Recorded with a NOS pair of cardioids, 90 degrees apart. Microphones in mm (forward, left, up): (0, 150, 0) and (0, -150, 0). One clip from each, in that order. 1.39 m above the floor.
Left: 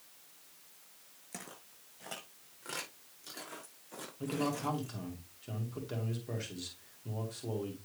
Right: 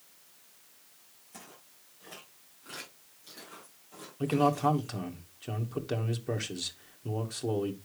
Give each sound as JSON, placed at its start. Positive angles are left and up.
{"t": 1.3, "sound": "footsteps", "azimuth_deg": 65, "distance_m": 5.5}
{"t": 4.2, "sound": "a man speaking", "azimuth_deg": -50, "distance_m": 1.9}